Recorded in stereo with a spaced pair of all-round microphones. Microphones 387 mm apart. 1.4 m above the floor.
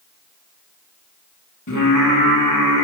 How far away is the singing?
About 1.8 m.